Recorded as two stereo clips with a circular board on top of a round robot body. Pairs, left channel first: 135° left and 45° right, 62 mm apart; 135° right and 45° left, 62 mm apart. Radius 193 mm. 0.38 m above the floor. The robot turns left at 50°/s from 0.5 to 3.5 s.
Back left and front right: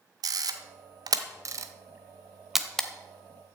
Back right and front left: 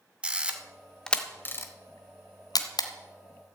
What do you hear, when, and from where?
0.2 s a camera shutter: 30° right, 1.1 m; by 2.9 s 150° right, 1.1 m